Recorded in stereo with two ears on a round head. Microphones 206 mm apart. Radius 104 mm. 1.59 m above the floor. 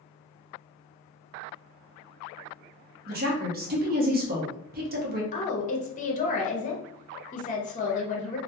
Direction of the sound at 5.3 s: 35° left (ahead or behind).